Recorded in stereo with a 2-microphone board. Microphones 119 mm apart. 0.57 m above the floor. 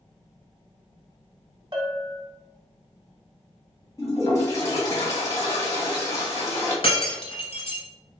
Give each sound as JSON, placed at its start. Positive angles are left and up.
{"t": 1.7, "sound": "a bell", "side_deg": -40, "distance_m": 0.9}
{"t": 4.0, "sound": "a toilet flushing", "side_deg": 30, "distance_m": 2.0}
{"t": 6.8, "sound": "breaking glass", "side_deg": 55, "distance_m": 1.2}